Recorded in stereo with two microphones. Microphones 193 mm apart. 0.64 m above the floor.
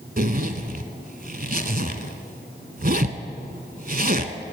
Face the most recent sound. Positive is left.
turn(degrees=-50)  # may be behind; listen again after turning